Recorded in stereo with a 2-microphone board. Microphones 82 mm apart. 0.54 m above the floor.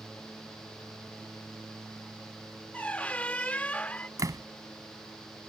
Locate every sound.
2.7 s a squeak: 15° left (ahead or behind)
4.2 s a door slam: 40° right (ahead or behind)